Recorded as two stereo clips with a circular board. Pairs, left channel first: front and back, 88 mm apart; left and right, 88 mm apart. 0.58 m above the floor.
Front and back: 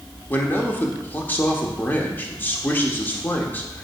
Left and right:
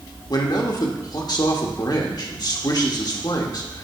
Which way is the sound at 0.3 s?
65° left.